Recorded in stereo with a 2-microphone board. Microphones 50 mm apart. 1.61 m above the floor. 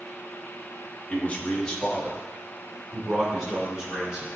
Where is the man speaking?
30° left (ahead or behind), 1.4 m; by 4.3 s 15° right (ahead or behind), 3 m.